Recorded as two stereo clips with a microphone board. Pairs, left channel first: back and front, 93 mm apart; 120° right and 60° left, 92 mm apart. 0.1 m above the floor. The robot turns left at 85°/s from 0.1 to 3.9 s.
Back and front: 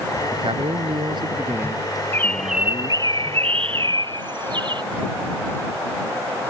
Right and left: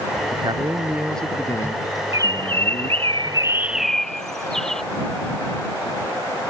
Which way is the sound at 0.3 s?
35° left.